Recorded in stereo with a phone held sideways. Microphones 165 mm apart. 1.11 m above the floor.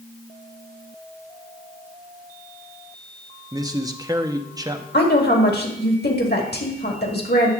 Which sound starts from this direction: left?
A woman speaking, at 4.9 s.